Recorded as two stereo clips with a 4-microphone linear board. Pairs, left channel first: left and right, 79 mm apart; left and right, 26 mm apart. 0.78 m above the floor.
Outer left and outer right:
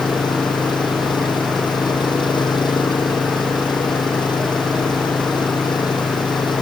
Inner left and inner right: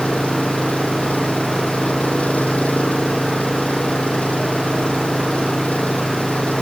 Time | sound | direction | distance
0.0 | an engine running | 75° left (ahead or behind) | ?